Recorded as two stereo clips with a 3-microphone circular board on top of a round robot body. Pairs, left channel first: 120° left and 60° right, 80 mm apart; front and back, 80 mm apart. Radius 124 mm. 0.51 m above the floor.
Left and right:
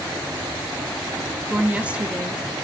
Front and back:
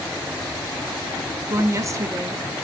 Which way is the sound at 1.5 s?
135° right.